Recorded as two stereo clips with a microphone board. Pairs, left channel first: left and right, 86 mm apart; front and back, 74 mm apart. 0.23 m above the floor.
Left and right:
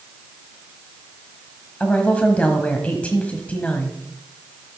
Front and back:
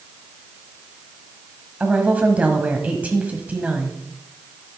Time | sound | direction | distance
1.8 | a woman speaking | 140° left | 1.3 m